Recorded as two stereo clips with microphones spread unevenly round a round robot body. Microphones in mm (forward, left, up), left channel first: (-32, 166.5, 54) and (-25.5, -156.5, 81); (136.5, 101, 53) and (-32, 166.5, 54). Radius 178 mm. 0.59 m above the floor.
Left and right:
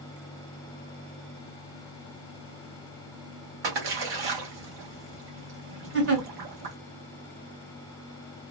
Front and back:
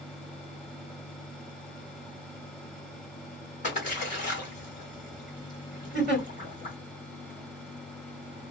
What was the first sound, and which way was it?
A splash, 80° right.